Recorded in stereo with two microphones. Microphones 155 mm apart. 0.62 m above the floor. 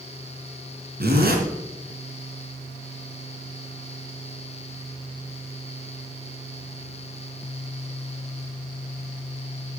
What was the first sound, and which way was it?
A zipper, 85° right.